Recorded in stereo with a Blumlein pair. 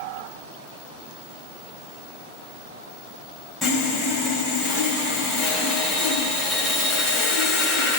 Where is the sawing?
15° left, 3 m.